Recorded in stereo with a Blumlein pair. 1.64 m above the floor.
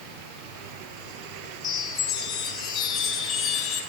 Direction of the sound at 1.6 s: 30° left.